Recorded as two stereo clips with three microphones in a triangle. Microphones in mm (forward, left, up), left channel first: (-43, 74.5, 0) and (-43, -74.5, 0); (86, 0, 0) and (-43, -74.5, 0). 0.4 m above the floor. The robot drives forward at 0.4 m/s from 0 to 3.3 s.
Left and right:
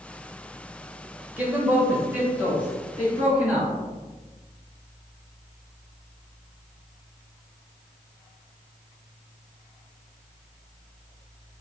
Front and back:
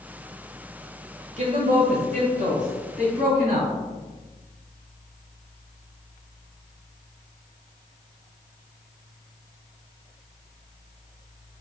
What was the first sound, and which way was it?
A man speaking, 165° right.